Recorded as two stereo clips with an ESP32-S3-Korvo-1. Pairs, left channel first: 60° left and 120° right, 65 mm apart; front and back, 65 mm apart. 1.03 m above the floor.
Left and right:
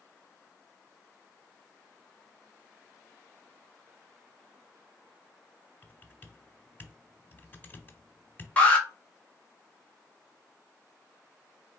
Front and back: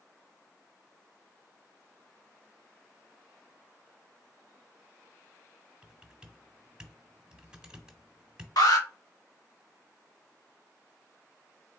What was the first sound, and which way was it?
Typing on a keyboard, 110° left.